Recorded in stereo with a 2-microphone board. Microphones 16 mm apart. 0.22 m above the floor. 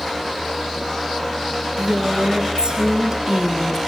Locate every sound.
1.8 s a woman speaking: 75° right (ahead or behind), 4 m; by 3.8 s 45° right (ahead or behind), 2.5 m